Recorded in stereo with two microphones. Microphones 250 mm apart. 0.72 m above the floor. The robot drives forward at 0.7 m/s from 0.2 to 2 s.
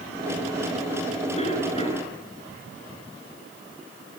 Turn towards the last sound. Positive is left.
turn(degrees=25)  # may be behind; listen again after turning